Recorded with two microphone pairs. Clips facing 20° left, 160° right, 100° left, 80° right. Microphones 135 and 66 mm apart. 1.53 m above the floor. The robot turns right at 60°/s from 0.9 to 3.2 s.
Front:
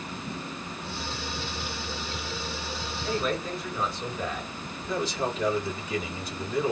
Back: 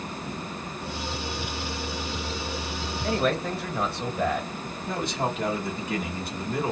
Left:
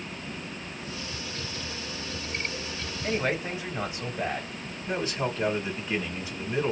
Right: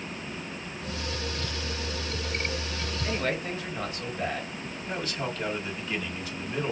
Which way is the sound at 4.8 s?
170° left.